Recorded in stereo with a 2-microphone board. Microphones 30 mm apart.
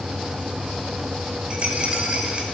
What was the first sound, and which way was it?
A rattle, 40° right (ahead or behind).